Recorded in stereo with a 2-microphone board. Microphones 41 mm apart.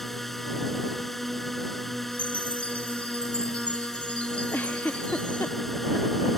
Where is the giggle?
50° left (ahead or behind).